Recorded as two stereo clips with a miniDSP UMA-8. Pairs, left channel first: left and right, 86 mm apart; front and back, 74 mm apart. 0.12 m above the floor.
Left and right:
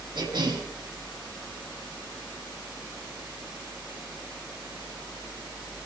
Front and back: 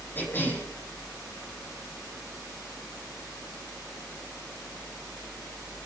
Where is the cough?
60° right, 5 m.